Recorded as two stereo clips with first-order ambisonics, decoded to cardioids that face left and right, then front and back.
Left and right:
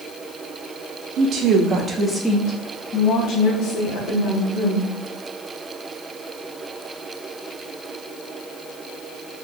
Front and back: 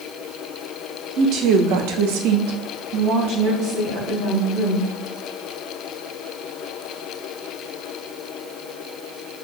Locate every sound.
1.2 s a woman speaking: 130° right, 0.7 m; by 4.9 s 120° left, 1.6 m